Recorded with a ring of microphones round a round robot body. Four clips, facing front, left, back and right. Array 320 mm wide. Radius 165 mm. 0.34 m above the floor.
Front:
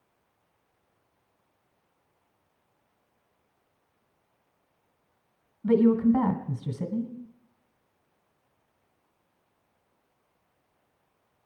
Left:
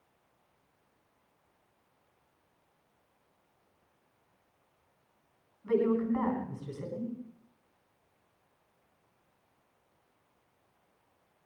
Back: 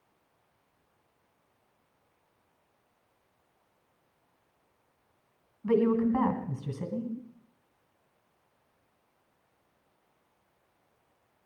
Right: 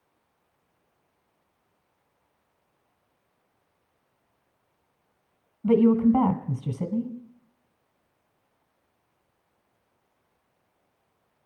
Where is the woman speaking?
60° right, 2.5 m.